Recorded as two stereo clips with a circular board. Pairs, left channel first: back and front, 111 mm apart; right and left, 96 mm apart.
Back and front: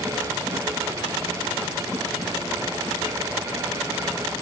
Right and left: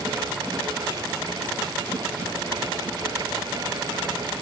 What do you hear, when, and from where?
Only background noise.